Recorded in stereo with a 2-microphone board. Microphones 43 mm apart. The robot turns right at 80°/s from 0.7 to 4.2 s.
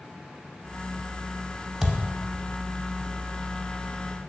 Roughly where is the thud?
Centre.